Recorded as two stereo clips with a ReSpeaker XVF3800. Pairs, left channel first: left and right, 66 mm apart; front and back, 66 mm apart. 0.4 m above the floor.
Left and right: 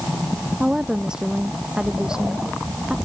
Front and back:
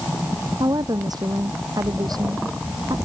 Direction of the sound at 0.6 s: 170° right.